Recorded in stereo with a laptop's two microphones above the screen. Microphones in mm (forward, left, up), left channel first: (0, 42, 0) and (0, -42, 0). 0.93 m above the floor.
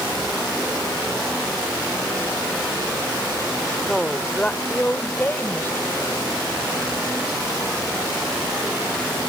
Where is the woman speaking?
5° left (ahead or behind); by 7.0 s 30° left (ahead or behind).